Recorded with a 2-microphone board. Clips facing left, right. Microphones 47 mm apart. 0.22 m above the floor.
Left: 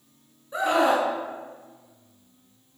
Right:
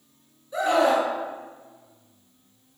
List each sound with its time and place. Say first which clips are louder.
0.5 s a scream: right 1 dB; 25° left (ahead or behind), 2 m